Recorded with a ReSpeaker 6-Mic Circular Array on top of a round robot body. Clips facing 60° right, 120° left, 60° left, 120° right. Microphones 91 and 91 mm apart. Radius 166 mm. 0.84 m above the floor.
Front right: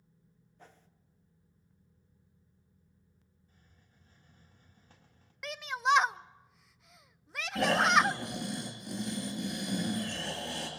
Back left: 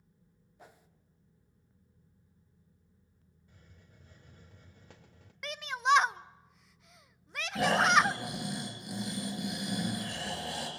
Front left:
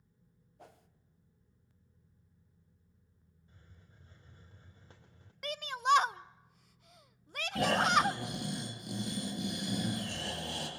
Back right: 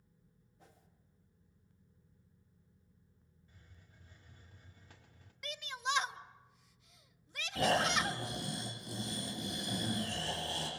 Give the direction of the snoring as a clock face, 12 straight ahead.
11 o'clock.